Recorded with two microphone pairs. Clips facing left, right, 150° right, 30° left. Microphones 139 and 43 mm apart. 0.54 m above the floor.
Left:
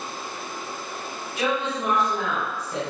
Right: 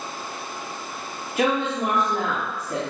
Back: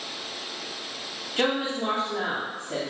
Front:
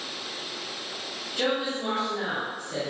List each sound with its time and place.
1.4 s a woman speaking: 115° right, 3 m